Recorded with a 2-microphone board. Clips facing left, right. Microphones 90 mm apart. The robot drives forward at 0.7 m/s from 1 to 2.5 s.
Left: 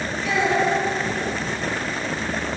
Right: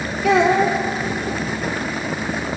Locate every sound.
0.2 s a child speaking: 75° right (ahead or behind), 2 m